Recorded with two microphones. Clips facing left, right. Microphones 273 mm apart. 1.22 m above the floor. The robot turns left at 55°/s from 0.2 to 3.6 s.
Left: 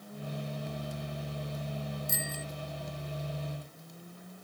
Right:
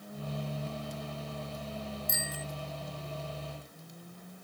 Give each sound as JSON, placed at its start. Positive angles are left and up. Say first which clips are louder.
{"t": 2.1, "sound": "a bicycle bell", "louder": "left 1 dB", "side_deg": 30}